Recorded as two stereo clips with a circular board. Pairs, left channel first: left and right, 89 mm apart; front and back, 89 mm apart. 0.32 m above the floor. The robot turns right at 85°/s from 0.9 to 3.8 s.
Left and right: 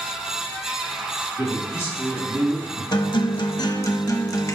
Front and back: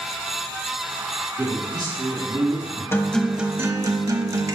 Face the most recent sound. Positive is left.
turn(degrees=135)